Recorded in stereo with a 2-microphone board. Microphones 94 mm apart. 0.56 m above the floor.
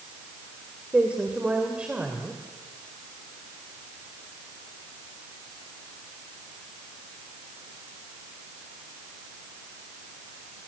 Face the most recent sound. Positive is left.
turn(degrees=-10)  # may be behind; listen again after turning